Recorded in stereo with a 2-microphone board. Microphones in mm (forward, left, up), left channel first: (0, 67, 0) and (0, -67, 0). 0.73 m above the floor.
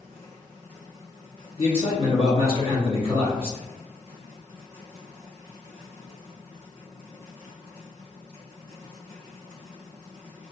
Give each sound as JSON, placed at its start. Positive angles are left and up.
{"t": 1.6, "sound": "a man speaking", "side_deg": 45, "distance_m": 1.1}